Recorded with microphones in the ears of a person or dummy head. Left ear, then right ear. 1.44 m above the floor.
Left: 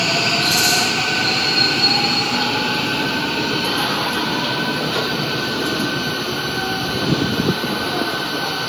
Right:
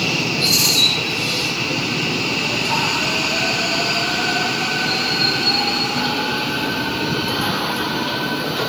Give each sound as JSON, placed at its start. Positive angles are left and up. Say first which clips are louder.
{"t": 0.4, "sound": "a rattle", "louder": "right 4 dB", "side_deg": 10, "distance_m": 7.0}